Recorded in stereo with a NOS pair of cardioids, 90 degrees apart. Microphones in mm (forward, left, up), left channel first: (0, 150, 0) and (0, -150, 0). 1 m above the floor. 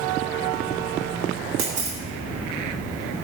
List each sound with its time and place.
1.6 s a camera shutter: 65° right, 3.5 m